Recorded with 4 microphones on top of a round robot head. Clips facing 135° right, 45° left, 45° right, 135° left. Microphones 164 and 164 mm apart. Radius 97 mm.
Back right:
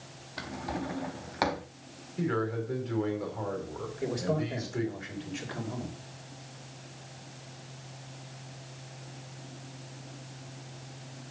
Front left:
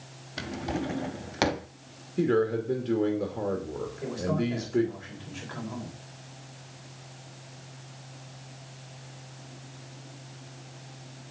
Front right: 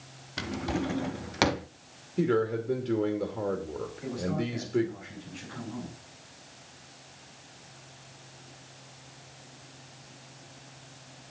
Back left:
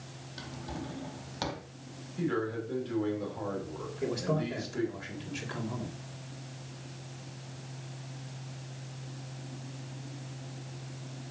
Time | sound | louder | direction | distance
0.4 | a drawer | front left 4 dB, front right 10 dB | 20° right | 0.5 m
2.2 | a man speaking | front left 6 dB, front right 6 dB | 5° right | 2.5 m
4.0 | a man speaking | front left 1 dB, back left 2 dB | 155° left | 4 m